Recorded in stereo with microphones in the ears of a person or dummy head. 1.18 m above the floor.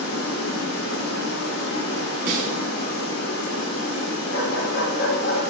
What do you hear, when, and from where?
0.0 s running water: 85° left, 3 m
2.3 s a snare drum: 45° right (ahead or behind), 2 m
4.3 s a dog barking: 70° left (ahead or behind), 3 m